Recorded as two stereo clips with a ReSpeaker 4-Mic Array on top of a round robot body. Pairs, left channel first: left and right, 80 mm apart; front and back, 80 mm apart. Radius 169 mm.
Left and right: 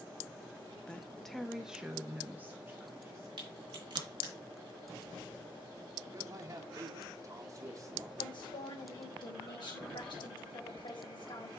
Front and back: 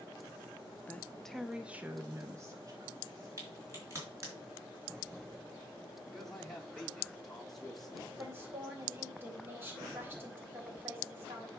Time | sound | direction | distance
0.9 | a woman speaking | 30° left | 1.0 m
3.4 | a crack | 120° right | 4 m
6.1 | a man speaking | 85° right | 1.4 m
8.2 | a woman speaking | 115° left | 3.5 m